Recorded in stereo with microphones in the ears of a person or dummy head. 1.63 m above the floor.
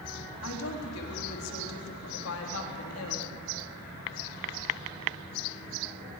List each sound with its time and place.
0.4 s a woman speaking: 80° left, 3.5 m